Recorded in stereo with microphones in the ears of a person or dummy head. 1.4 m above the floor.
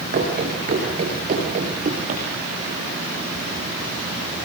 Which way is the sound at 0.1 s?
40° right (ahead or behind).